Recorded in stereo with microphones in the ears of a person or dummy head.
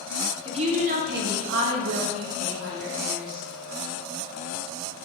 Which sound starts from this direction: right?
A woman speaking, at 0.5 s.